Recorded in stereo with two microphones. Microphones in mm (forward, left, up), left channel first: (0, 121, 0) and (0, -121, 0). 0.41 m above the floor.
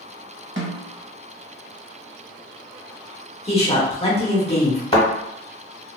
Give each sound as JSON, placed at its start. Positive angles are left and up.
{"t": 0.6, "sound": "a snare drum", "side_deg": -55, "distance_m": 0.7}
{"t": 3.5, "sound": "a man speaking", "side_deg": 25, "distance_m": 0.8}
{"t": 4.9, "sound": "a thud", "side_deg": 25, "distance_m": 1.1}